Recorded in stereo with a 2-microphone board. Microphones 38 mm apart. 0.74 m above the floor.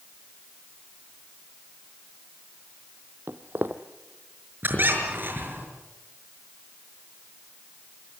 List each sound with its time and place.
3.3 s footsteps: 60° right (ahead or behind), 1.5 m
4.6 s a squeak: 55° right (ahead or behind), 6 m